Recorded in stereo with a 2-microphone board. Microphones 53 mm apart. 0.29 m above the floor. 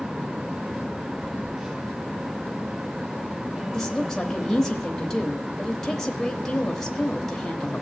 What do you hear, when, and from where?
1.2 s a phone buzzing: 15° right (ahead or behind), 4.5 m
3.7 s a woman speaking: 10° left (ahead or behind), 0.9 m